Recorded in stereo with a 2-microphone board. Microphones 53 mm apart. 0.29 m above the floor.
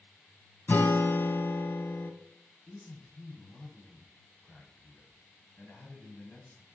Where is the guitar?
40° left (ahead or behind), 1.0 m.